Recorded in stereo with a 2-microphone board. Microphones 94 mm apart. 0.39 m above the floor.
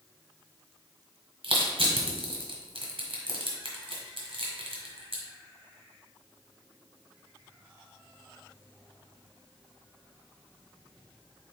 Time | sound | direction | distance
1.4 | crushing | 70° right (ahead or behind) | 1.3 m